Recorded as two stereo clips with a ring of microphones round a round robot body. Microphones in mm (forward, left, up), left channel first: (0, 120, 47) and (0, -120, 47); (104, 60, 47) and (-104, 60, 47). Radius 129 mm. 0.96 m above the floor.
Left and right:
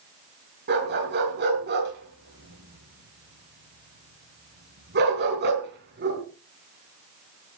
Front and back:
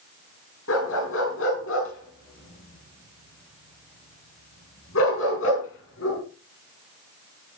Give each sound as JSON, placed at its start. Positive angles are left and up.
{"t": 0.7, "sound": "a dog barking", "azimuth_deg": -40, "distance_m": 8.0}